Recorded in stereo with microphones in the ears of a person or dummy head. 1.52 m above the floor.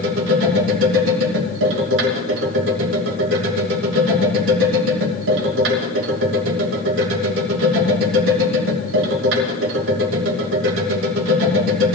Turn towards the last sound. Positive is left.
turn(degrees=-75)  # may be behind; listen again after turning